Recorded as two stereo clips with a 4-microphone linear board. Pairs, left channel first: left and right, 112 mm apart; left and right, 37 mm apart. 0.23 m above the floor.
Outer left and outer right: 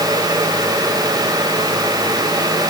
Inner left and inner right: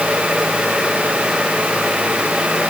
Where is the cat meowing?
No cat meowing in this recording.